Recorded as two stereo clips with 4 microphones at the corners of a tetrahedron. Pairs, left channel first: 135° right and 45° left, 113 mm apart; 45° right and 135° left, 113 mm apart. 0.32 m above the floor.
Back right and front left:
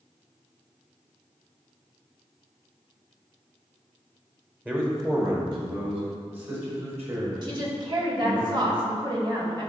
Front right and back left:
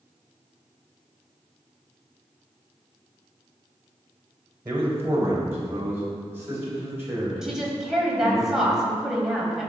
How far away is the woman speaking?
About 1.3 m.